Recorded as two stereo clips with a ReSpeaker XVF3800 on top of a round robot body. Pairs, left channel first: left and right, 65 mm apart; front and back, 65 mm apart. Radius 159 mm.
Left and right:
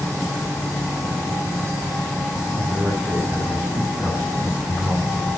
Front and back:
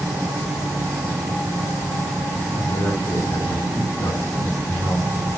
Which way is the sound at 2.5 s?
15° right.